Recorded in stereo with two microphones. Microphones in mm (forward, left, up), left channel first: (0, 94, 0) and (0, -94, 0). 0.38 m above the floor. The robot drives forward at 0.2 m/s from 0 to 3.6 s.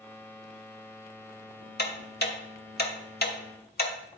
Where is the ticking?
60° left (ahead or behind), 1.0 m; by 4.2 s 55° left (ahead or behind), 1.0 m.